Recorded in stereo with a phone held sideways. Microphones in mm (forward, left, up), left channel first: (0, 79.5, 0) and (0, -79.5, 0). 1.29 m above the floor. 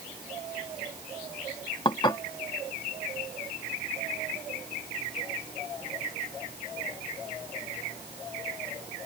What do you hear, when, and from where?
1.9 s dishes clattering: 30° left (ahead or behind)